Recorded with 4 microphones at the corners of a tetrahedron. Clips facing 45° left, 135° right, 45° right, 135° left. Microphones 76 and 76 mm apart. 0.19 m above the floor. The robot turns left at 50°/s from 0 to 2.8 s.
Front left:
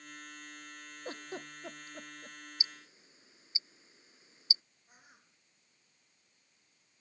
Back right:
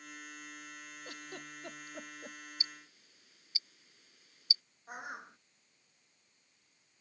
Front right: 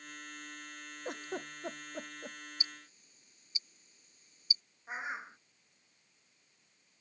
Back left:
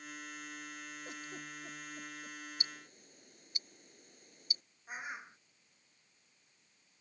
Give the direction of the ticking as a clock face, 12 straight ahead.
8 o'clock.